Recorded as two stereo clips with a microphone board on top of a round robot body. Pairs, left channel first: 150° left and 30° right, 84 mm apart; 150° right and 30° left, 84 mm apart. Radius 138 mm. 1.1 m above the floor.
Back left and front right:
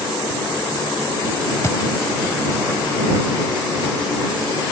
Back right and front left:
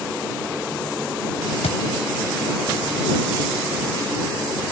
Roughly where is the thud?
Behind right.